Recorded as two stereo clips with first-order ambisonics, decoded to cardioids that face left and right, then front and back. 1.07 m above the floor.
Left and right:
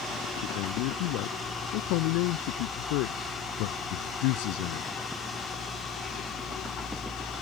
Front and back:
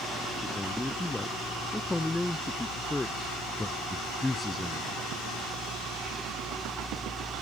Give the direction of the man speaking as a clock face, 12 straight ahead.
9 o'clock.